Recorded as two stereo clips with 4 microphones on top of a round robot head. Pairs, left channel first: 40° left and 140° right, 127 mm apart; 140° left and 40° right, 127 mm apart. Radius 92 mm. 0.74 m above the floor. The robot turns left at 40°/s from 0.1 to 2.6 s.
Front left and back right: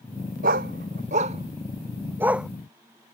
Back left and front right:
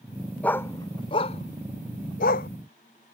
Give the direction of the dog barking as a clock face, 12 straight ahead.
5 o'clock.